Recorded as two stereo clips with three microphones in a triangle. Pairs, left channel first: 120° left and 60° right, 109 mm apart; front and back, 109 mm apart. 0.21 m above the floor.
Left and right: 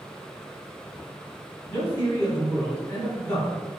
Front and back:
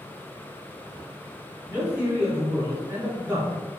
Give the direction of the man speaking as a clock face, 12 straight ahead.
6 o'clock.